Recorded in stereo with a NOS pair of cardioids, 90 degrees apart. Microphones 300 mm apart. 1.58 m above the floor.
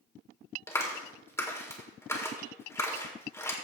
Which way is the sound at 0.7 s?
10° left.